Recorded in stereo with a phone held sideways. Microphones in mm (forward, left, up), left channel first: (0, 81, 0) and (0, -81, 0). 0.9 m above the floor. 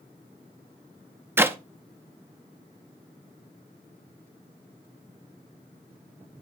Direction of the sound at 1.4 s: 15° right (ahead or behind).